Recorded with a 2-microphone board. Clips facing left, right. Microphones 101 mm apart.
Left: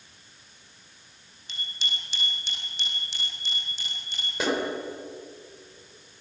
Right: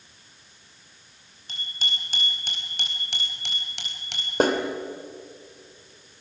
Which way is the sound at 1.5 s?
45° right (ahead or behind).